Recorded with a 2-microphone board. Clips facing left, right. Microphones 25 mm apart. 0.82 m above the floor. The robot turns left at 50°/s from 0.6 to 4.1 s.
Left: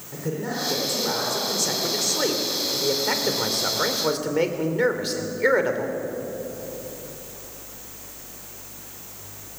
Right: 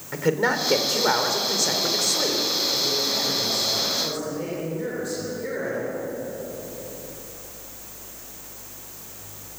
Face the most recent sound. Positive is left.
turn(degrees=65)